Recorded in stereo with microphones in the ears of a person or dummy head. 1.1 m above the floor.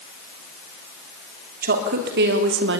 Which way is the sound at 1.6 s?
50° right (ahead or behind).